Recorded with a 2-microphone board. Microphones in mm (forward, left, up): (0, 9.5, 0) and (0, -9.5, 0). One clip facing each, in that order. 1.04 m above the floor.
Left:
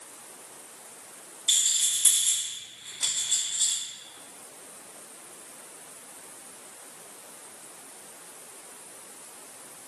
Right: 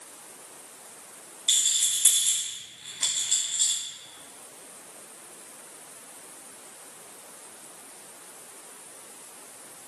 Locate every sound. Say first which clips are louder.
1.5 s a rattle: right 1 dB; 55° right (ahead or behind), 1.5 m